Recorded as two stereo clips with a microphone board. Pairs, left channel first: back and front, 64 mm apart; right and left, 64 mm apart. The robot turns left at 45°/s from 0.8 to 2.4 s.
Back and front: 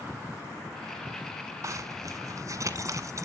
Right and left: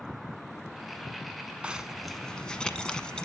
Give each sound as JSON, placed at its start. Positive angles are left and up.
{"t": 1.6, "sound": "a zipper", "azimuth_deg": 20, "distance_m": 1.1}